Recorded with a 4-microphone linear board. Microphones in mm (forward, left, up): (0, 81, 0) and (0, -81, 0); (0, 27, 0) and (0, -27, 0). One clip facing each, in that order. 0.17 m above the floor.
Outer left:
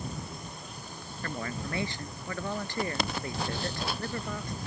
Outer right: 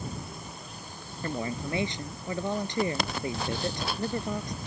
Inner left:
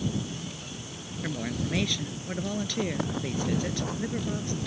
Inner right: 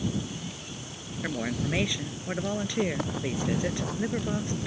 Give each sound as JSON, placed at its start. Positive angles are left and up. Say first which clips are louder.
{"t": 1.2, "sound": "a woman speaking", "louder": "outer right 4 dB, inner right 2 dB", "side_deg": -20}